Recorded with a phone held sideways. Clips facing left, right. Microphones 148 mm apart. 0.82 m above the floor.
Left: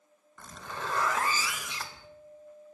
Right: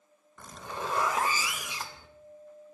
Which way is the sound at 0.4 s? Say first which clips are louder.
Right 2 dB; 15° right (ahead or behind).